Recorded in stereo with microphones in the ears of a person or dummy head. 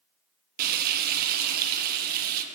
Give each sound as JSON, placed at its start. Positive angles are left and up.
{"t": 0.6, "sound": "frying", "side_deg": -50, "distance_m": 0.9}